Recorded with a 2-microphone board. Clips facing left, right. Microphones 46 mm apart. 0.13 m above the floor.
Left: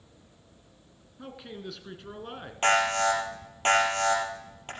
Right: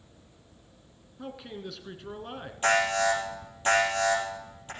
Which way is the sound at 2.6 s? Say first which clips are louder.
Left 1 dB; 55° left (ahead or behind).